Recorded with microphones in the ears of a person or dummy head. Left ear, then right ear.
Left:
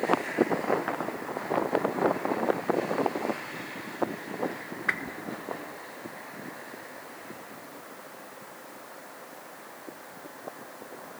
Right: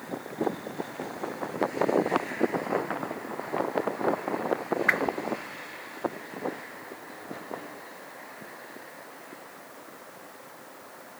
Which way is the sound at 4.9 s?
15° right (ahead or behind).